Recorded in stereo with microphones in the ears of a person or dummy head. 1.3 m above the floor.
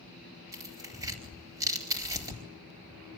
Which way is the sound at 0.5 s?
15° right (ahead or behind).